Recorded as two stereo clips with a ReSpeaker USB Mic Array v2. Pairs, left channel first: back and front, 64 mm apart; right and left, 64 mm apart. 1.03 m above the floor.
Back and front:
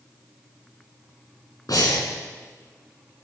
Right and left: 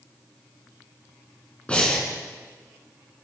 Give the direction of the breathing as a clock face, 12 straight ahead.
5 o'clock.